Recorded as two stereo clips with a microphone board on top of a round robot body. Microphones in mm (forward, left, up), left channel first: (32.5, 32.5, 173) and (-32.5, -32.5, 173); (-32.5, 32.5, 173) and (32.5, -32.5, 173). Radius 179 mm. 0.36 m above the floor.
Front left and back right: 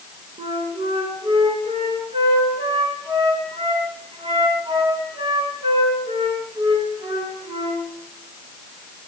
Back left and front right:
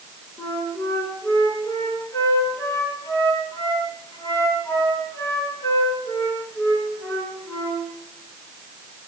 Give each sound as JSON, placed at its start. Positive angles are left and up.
{"t": 0.4, "sound": "a flute", "azimuth_deg": -165, "distance_m": 4.0}